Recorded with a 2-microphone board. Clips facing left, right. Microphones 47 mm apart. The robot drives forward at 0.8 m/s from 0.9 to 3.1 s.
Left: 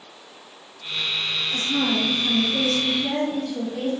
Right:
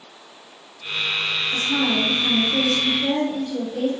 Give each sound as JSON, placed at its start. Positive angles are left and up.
{"t": 1.5, "sound": "a woman speaking", "side_deg": -35, "distance_m": 1.2}